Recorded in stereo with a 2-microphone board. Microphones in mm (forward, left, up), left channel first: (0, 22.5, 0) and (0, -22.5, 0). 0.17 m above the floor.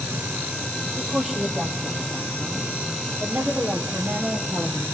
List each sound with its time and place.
1.0 s a woman speaking: 10° right (ahead or behind), 6 m; by 4.8 s 30° right (ahead or behind), 6 m